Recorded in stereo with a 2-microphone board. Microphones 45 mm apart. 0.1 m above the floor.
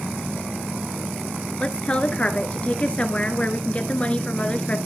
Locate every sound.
1.6 s a woman speaking: 25° left (ahead or behind), 1.6 m